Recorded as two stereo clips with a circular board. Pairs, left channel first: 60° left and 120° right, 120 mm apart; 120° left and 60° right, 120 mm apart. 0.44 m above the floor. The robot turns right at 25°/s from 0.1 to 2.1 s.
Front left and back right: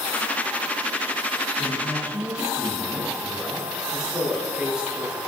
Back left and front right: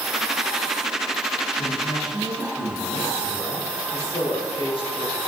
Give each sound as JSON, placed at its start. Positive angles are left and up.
{"t": 1.6, "sound": "a man speaking", "azimuth_deg": 130, "distance_m": 3.0}
{"t": 3.9, "sound": "a woman speaking", "azimuth_deg": 155, "distance_m": 6.0}